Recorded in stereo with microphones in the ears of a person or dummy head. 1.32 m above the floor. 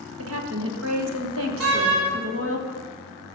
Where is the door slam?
85° right, 2.5 m.